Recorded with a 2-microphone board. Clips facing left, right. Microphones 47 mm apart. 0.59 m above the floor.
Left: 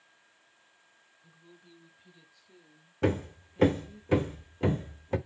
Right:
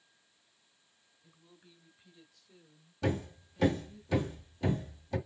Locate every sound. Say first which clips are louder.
1.2 s a woman speaking: left 4 dB; centre (ahead or behind), 2.5 m; by 4.0 s 30° left (ahead or behind), 0.9 m
3.0 s hammering: left 5 dB; 40° left (ahead or behind), 1.0 m